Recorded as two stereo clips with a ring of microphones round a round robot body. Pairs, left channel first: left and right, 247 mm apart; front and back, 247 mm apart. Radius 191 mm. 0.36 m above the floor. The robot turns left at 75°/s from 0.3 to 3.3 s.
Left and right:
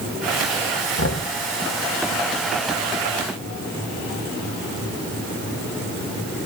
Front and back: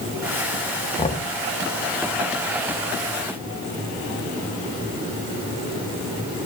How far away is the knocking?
About 2.5 m.